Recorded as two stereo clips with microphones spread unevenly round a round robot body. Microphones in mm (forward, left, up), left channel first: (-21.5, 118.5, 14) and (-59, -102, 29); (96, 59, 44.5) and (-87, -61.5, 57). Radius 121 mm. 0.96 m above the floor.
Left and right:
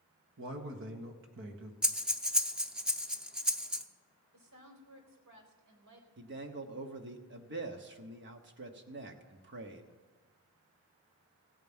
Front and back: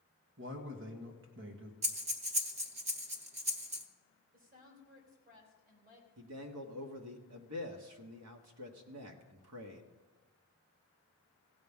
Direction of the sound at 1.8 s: Straight behind.